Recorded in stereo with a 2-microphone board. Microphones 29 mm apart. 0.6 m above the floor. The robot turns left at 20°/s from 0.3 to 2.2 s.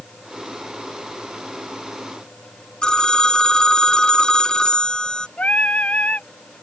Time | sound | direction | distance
2.8 | a phone ringing | 30° left (ahead or behind) | ?
5.4 | singing | 55° left (ahead or behind) | ?